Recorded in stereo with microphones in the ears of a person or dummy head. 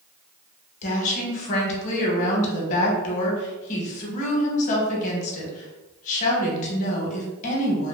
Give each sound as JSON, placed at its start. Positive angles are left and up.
{"t": 0.8, "sound": "a woman speaking", "side_deg": 45, "distance_m": 0.9}